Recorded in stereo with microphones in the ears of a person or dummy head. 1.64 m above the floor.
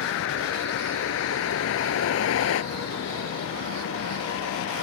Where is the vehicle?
70° left (ahead or behind); by 4.8 s 85° left.